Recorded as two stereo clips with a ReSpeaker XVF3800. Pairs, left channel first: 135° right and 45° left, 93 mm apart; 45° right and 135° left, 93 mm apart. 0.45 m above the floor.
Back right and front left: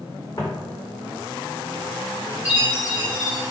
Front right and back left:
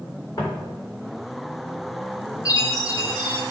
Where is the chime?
20° right, 1.6 m.